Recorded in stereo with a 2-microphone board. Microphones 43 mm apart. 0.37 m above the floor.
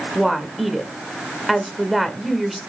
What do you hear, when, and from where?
0.1 s a woman speaking: centre (ahead or behind), 1.3 m